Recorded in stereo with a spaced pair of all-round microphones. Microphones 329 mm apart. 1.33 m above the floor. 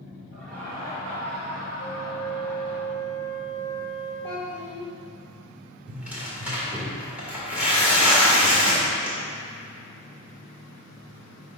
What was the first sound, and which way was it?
Laughter, 5° right (ahead or behind).